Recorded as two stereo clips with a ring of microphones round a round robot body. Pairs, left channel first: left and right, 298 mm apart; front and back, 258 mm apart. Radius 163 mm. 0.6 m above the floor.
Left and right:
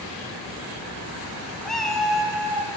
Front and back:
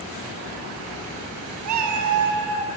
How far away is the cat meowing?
About 0.7 m.